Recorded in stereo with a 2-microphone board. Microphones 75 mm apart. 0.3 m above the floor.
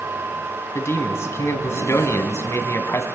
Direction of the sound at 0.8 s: 35° left (ahead or behind).